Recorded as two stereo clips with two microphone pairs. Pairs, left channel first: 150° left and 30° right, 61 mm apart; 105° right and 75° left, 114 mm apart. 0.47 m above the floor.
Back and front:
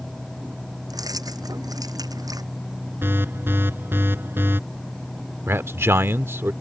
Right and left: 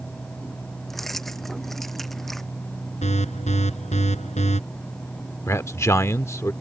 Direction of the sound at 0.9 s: 15° right.